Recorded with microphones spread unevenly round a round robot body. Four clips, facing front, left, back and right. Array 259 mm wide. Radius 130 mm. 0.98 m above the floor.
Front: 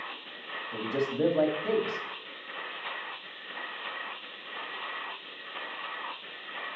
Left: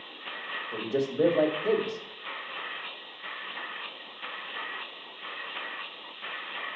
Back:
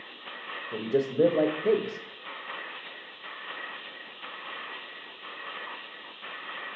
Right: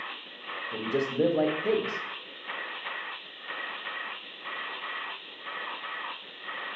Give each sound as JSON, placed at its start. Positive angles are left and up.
{"t": 0.7, "sound": "a man speaking", "azimuth_deg": 180, "distance_m": 1.0}